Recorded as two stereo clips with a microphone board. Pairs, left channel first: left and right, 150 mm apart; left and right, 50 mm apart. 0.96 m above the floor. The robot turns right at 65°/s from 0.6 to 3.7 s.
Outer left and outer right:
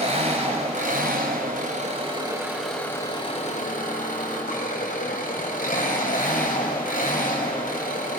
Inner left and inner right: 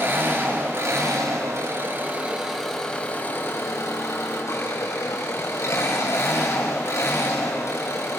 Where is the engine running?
135° right, 3.5 m; by 8.2 s 65° left, 3.5 m.